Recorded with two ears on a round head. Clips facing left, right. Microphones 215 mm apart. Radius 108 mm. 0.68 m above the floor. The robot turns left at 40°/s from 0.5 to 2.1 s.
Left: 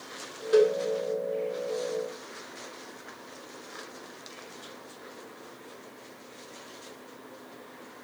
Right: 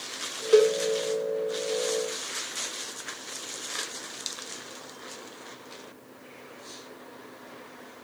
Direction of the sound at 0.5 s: 70° right (ahead or behind).